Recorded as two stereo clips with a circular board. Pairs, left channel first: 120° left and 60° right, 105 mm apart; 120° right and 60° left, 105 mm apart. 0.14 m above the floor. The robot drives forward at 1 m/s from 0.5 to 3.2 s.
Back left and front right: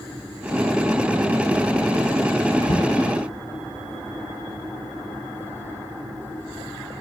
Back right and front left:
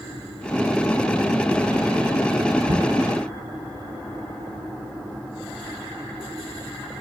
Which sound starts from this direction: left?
Knocking, at 2.6 s.